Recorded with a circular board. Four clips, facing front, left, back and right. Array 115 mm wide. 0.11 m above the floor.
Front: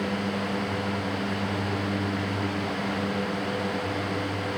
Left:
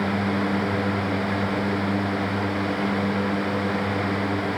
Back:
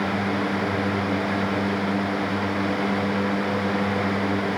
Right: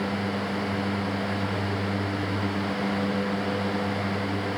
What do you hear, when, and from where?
Only background noise.